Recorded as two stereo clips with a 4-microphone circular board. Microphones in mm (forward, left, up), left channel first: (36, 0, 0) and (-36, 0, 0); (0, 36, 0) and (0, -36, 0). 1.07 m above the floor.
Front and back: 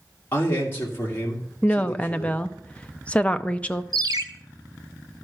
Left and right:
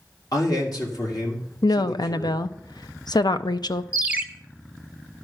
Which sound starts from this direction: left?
A woman speaking, at 1.6 s.